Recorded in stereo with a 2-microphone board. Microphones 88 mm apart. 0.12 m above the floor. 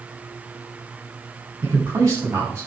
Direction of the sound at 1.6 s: 35° right (ahead or behind).